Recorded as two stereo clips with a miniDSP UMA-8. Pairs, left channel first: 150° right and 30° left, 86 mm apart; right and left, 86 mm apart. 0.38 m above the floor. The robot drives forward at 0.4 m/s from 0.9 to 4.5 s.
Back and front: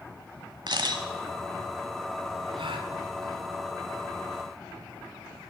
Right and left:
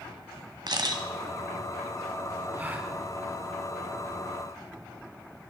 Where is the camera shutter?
60° left, 1.4 m.